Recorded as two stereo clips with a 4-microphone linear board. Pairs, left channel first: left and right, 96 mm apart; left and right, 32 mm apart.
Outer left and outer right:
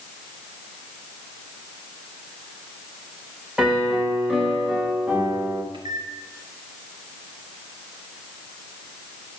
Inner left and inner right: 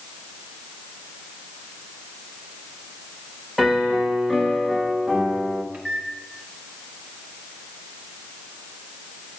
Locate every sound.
3.6 s a piano: 10° right (ahead or behind), 1.2 m
5.7 s a microwave: 55° right (ahead or behind), 1.3 m